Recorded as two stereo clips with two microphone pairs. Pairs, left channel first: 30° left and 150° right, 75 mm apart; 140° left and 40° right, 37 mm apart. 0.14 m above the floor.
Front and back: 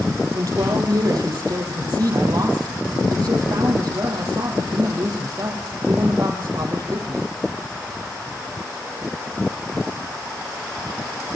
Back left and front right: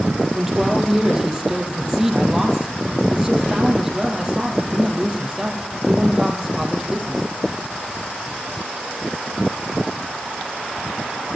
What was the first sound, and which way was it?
A man speaking, 120° right.